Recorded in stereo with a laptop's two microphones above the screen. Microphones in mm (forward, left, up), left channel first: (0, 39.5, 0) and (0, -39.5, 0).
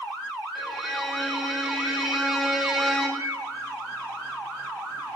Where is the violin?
Centre (ahead or behind), 2 m.